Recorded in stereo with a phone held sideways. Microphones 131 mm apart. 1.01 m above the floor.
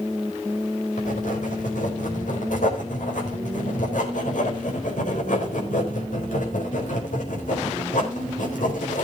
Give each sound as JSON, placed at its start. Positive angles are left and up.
{"t": 1.0, "sound": "writing", "side_deg": 80, "distance_m": 4.0}